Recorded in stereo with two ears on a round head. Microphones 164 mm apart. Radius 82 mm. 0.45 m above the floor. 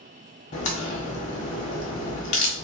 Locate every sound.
0.5 s a crack: 40° left (ahead or behind), 1.3 m